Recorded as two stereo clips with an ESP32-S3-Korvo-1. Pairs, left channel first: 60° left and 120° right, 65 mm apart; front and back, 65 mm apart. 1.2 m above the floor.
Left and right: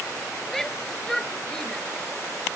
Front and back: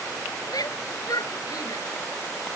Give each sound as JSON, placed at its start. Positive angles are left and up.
{"t": 0.5, "sound": "a shout", "azimuth_deg": -25}